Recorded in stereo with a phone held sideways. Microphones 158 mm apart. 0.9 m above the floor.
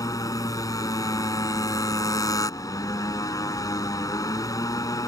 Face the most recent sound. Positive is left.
turn(degrees=20)  # may be behind; listen again after turning